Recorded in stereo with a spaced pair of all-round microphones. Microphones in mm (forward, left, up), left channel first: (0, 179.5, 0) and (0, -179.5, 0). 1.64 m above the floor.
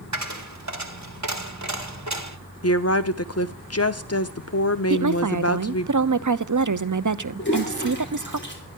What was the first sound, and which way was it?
A dropped coin, 50° right (ahead or behind).